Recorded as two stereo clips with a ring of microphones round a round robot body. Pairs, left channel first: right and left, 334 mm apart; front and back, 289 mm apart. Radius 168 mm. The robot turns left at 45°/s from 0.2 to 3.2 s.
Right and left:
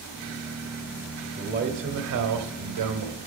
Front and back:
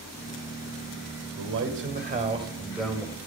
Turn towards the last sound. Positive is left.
turn(degrees=75)